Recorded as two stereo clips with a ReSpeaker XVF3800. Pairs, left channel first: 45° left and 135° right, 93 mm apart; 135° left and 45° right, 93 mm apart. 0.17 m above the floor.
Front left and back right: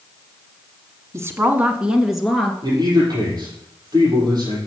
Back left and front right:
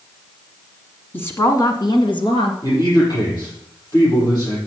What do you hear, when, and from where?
1.1 s a woman speaking: 165° right, 1.4 m; by 2.5 s 130° left, 2.5 m
2.6 s a man speaking: straight behind, 6.5 m